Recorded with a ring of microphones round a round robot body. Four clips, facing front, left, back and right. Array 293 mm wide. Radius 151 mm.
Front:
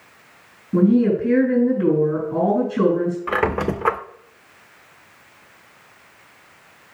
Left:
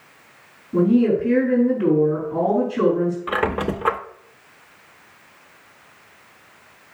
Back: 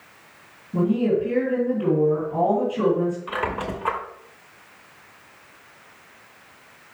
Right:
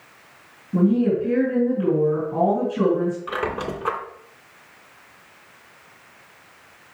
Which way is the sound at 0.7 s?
10° left.